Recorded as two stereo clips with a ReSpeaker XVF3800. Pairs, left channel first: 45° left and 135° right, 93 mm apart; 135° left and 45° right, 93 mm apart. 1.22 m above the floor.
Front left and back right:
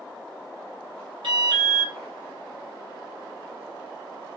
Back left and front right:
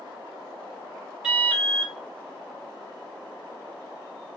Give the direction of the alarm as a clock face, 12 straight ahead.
4 o'clock.